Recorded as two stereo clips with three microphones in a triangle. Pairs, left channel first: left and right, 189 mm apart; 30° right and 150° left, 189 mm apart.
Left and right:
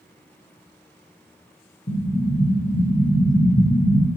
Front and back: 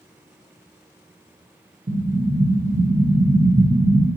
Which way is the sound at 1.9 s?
120° left.